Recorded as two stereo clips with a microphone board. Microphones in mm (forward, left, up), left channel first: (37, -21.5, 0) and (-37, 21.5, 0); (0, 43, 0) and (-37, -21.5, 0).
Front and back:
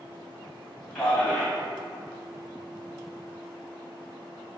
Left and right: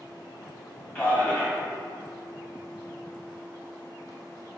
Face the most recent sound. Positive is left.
turn(degrees=30)